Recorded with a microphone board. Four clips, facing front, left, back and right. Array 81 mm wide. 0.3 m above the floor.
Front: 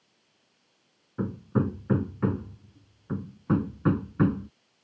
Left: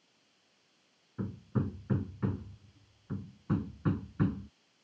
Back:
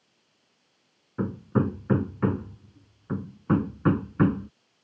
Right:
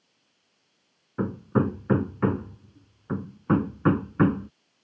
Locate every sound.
1.2 s hammering: 100° right